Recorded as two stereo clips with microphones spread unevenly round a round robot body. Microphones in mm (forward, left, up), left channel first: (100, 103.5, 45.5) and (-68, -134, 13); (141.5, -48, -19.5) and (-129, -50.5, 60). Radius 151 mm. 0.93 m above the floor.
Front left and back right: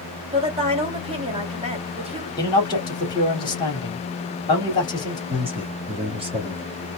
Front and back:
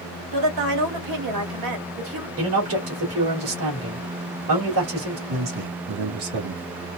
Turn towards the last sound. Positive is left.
turn(degrees=165)